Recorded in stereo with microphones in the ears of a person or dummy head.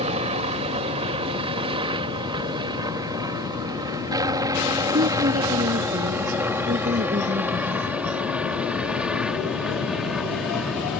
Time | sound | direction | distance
0.0 | a helicopter | 35° right (ahead or behind) | ?
4.9 | a woman speaking | 45° right (ahead or behind) | ?